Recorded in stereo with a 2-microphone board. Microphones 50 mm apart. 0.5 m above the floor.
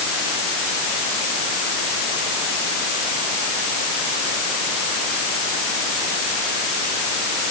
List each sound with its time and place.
Only background noise.